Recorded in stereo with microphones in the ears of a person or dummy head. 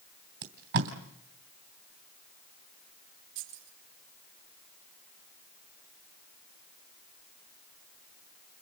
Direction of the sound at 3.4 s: 75° right (ahead or behind).